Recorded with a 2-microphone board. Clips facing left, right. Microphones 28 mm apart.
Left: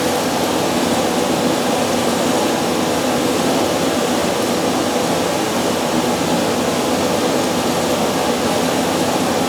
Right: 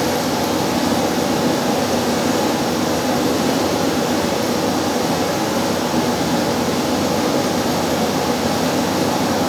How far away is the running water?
About 6.5 m.